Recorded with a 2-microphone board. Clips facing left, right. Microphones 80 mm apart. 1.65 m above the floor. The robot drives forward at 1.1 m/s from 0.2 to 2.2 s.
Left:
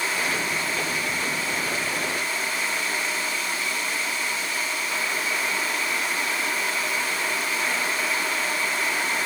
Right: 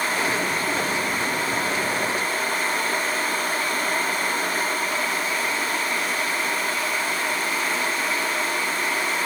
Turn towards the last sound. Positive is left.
No sound to turn to.